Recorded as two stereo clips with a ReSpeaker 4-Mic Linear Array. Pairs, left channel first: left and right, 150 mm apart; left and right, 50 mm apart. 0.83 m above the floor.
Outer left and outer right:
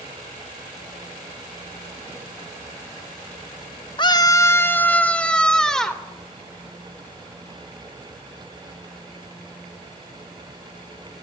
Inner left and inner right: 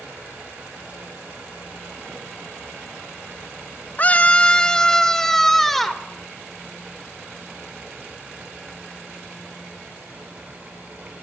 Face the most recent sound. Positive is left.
turn(degrees=5)  # may be behind; listen again after turning